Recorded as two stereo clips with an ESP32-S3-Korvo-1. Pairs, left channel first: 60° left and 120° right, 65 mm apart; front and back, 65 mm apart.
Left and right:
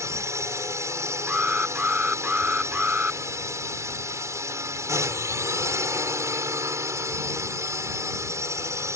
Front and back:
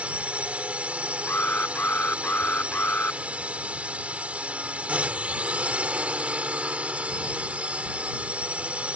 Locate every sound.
0.0 s a drone: 115° right
1.3 s an alarm: 55° right